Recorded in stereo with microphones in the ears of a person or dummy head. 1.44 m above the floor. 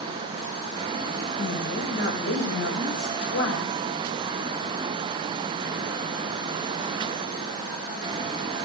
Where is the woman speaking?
85° left, 7 m.